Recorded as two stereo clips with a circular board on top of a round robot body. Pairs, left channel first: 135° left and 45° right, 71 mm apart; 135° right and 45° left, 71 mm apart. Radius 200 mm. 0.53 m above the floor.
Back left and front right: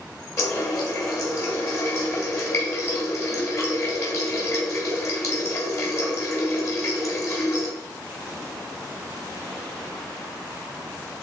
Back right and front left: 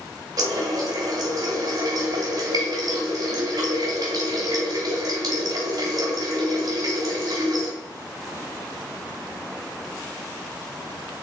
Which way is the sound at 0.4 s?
85° left.